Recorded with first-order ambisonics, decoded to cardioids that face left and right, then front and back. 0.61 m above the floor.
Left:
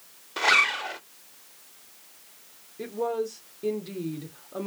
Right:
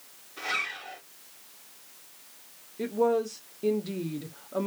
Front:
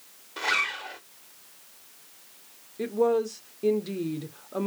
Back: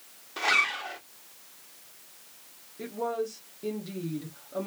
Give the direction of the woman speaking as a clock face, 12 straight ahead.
1 o'clock.